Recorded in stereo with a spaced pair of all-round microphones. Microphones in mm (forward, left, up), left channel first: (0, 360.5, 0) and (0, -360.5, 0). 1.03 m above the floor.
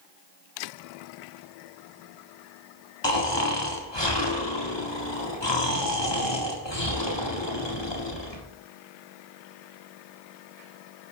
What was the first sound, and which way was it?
Snoring, 35° left (ahead or behind).